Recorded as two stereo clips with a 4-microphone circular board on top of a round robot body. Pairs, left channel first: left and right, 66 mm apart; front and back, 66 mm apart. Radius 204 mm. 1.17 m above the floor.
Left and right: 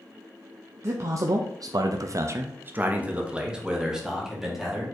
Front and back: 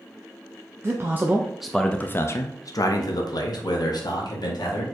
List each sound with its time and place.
0.8 s a man speaking: 130° right, 0.8 m; by 4.8 s straight ahead, 1.8 m